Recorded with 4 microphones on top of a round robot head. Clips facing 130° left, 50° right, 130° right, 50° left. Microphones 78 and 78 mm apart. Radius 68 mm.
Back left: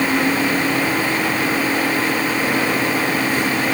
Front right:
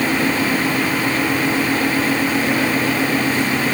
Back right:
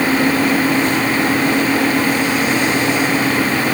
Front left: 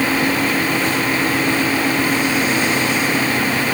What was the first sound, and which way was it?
Only background noise.